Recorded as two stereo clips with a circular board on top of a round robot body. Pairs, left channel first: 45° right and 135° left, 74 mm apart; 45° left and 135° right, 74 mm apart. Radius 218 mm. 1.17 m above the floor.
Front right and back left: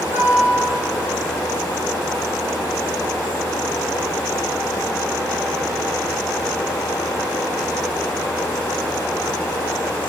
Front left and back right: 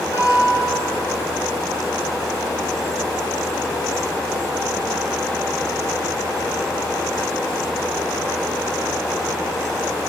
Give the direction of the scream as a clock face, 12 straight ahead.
No scream in this recording.